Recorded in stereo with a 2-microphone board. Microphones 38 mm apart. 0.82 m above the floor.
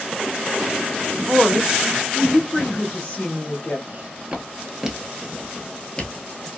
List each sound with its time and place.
1.3 s a woman speaking: 25° right (ahead or behind), 0.9 m; by 3.8 s 40° left (ahead or behind), 1.0 m
3.9 s footsteps: 45° right (ahead or behind), 1.0 m; by 6.5 s 30° left (ahead or behind), 1.1 m